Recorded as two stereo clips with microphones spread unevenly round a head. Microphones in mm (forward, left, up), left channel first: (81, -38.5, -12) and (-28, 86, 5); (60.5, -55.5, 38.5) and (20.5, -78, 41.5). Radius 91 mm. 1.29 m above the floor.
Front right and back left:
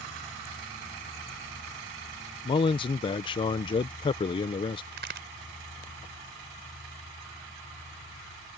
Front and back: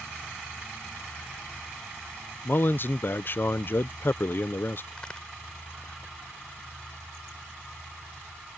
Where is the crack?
110° left.